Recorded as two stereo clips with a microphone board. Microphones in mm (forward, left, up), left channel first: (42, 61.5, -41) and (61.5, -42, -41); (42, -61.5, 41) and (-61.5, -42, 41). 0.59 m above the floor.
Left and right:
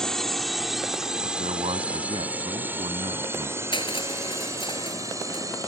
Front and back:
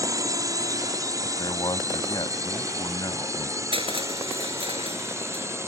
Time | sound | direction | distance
0.0 | a drone | straight behind | ?
1.2 | a man speaking | 55° right | ?
3.7 | crushing | 140° left | ?